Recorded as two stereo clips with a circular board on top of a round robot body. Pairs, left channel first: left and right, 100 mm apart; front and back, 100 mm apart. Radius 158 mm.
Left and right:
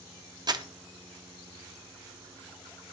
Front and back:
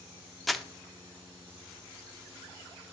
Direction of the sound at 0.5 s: 90° right.